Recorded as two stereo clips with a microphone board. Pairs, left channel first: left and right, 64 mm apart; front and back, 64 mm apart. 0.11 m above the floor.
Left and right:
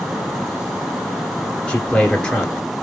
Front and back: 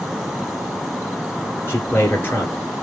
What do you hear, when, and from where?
1.7 s a man speaking: 20° left, 2 m